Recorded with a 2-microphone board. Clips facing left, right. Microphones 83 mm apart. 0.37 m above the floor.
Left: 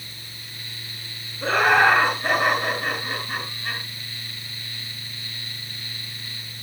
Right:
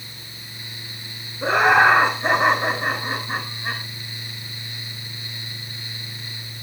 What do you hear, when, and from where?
1.4 s laughter: 20° right (ahead or behind), 6 m; by 3.8 s 30° right (ahead or behind), 6.5 m